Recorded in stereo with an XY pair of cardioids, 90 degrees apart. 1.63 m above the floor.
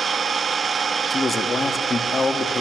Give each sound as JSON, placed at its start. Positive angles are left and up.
{"t": 0.0, "sound": "an engine running", "azimuth_deg": -45, "distance_m": 2.0}
{"t": 1.1, "sound": "a man speaking", "azimuth_deg": 30, "distance_m": 3.0}